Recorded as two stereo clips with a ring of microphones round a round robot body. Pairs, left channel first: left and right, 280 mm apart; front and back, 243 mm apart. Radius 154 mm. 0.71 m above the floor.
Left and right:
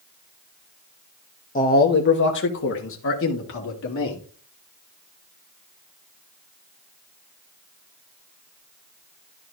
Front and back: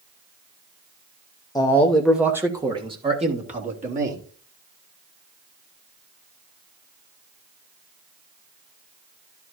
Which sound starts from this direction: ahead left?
A man speaking, at 1.6 s.